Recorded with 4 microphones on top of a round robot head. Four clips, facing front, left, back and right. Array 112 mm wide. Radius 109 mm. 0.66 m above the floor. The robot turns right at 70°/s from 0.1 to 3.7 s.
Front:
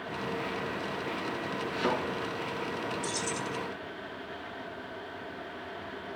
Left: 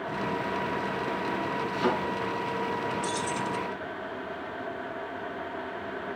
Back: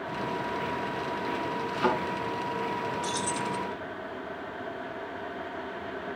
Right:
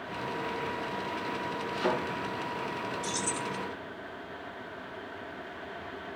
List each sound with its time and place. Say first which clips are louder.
1.7 s a thud: left 3 dB, back 4 dB; 155° left, 4.5 m; by 1.9 s 165° left, 4.5 m
3.0 s keys jangling: left 4 dB, back 4 dB; 135° right, 0.7 m; by 3.6 s 95° right, 0.7 m